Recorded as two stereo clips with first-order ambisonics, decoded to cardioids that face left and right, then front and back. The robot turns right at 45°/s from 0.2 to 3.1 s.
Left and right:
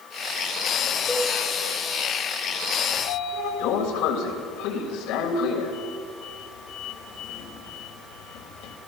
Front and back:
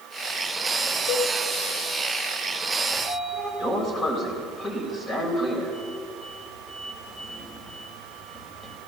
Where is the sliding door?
60° left, 3 m; by 8.8 s 70° left, 3 m.